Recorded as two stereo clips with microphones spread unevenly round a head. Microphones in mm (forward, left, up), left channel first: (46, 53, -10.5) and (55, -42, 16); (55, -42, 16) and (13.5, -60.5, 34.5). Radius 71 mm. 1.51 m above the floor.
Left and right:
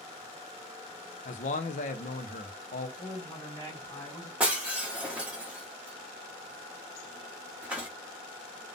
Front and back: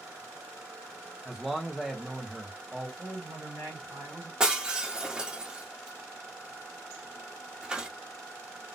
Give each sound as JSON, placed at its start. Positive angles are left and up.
{"t": 1.2, "sound": "a man speaking", "azimuth_deg": 115, "distance_m": 0.8}
{"t": 3.0, "sound": "a woman speaking", "azimuth_deg": 165, "distance_m": 2.0}
{"t": 4.4, "sound": "breaking glass", "azimuth_deg": -140, "distance_m": 1.0}